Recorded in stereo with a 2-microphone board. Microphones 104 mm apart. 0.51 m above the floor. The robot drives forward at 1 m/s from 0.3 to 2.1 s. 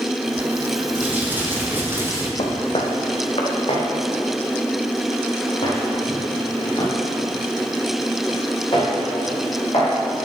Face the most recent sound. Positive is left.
turn(degrees=60)  # may be behind; listen again after turning